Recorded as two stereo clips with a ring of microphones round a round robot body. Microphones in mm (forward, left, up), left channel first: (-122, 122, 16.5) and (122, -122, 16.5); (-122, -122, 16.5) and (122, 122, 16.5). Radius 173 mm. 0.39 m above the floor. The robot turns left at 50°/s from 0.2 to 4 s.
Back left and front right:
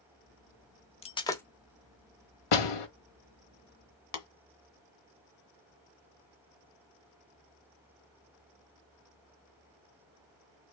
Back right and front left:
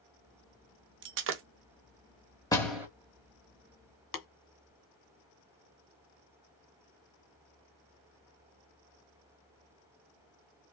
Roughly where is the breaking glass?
Left.